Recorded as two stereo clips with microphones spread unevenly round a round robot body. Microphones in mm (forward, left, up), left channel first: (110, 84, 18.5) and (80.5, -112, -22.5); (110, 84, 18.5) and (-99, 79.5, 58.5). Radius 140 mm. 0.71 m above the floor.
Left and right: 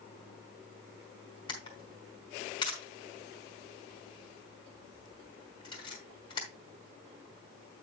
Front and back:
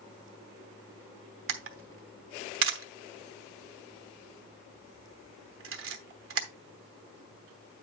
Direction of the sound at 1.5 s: 155° left.